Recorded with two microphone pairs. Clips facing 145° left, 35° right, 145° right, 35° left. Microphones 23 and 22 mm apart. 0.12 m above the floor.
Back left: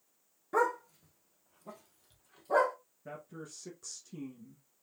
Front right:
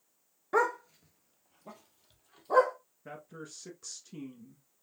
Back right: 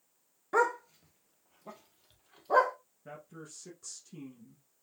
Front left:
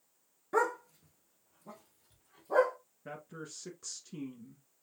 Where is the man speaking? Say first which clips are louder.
Even, front left 3 dB; 15° left, 1.2 m.